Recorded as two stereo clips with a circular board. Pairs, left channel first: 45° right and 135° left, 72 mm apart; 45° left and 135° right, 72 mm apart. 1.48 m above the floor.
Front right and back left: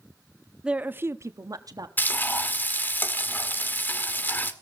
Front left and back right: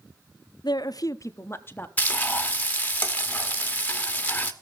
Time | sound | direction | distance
0.6 | a woman speaking | 55° left | 0.6 m
2.0 | frying | 5° right | 1.1 m